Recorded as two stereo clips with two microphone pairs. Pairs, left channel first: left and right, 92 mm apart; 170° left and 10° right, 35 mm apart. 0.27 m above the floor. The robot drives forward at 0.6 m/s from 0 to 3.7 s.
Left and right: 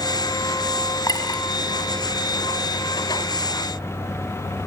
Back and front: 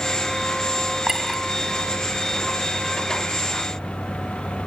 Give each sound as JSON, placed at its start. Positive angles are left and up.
{"t": 1.1, "sound": "a clink", "azimuth_deg": 60, "distance_m": 1.1}